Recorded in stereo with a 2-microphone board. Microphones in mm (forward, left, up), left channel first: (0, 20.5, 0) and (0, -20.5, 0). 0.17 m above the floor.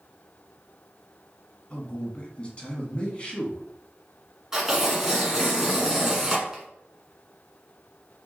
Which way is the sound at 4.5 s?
15° right (ahead or behind).